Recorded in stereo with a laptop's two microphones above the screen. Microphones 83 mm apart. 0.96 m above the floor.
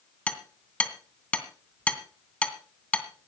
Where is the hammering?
10° left (ahead or behind), 2 m.